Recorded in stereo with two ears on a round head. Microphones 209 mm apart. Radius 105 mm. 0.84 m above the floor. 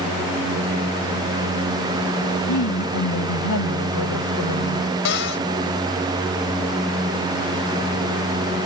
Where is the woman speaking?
80° left; by 4.9 s 65° left (ahead or behind).